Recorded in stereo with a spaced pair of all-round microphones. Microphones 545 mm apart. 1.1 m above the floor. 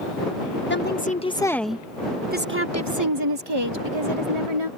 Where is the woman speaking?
20° left (ahead or behind); by 4.7 s 65° right (ahead or behind).